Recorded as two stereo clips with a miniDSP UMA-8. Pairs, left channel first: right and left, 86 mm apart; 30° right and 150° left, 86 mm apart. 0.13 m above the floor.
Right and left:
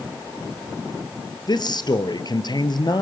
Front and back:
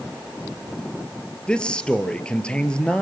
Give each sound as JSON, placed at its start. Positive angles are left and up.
{"t": 1.5, "sound": "a man speaking", "azimuth_deg": -105, "distance_m": 2.5}